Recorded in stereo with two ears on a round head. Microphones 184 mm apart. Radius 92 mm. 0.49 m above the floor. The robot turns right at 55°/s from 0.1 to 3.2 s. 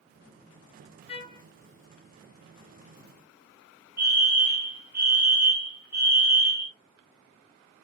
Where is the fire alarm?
10° right (ahead or behind), 1.7 m.